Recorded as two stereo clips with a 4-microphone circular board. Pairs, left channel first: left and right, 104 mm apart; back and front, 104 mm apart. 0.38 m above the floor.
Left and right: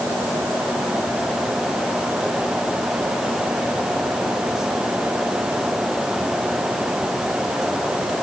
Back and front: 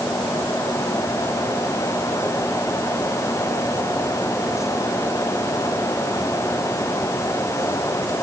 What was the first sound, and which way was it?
Only background noise.